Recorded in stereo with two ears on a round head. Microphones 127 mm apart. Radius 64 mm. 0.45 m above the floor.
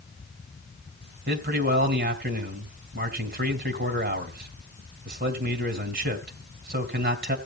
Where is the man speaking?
65° right (ahead or behind), 3 m.